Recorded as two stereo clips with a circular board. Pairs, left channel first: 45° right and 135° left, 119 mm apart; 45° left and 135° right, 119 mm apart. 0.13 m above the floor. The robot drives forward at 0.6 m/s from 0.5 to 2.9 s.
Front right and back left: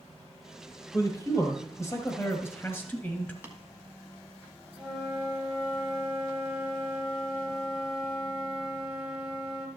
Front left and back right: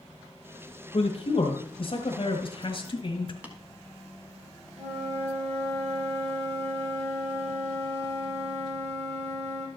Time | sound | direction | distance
0.9 | a man speaking | 15° left | 2 m
3.4 | tapping | 175° left | 1.3 m
4.8 | a flute | 140° right | 2 m